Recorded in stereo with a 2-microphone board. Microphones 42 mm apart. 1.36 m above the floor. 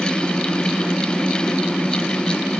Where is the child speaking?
No child speaking in this recording.